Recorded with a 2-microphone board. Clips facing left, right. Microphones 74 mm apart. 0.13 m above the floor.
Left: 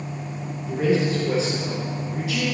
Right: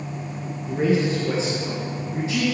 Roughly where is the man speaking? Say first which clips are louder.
Even; right.